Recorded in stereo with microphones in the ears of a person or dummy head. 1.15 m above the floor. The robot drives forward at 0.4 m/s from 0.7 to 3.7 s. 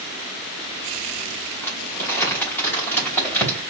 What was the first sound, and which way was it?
Crumpling, 10° left (ahead or behind).